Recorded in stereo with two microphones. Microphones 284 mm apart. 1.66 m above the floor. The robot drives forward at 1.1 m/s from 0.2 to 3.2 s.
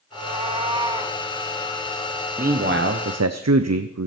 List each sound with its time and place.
0.1 s a cat meowing: 20° right (ahead or behind), 1.1 m; by 1.2 s 15° right (ahead or behind), 1.5 m
2.4 s a man speaking: 30° right (ahead or behind), 1.2 m; by 4.1 s 75° right (ahead or behind), 0.7 m